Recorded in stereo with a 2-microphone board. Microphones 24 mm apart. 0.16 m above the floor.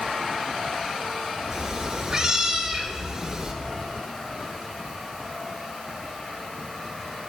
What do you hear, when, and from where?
1.5 s a cat meowing: 10° right (ahead or behind), 1.3 m